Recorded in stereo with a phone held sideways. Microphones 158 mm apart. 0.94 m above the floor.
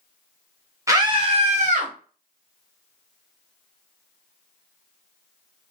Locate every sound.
0.9 s a scream: 20° right (ahead or behind), 0.6 m; by 1.9 s 55° right (ahead or behind), 0.9 m